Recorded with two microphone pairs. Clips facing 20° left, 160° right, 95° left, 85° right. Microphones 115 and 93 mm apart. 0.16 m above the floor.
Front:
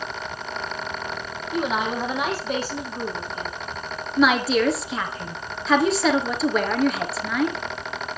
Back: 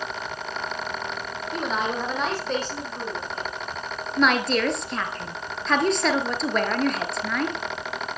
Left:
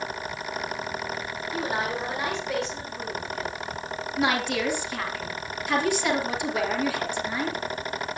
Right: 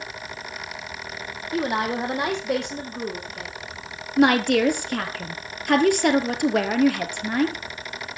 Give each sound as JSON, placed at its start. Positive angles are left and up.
{"t": 1.5, "sound": "a woman speaking", "azimuth_deg": -60, "distance_m": 5.0}
{"t": 4.2, "sound": "a woman speaking", "azimuth_deg": -65, "distance_m": 2.5}